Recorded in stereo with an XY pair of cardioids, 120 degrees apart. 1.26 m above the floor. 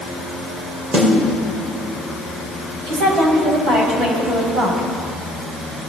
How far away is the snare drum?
About 6 m.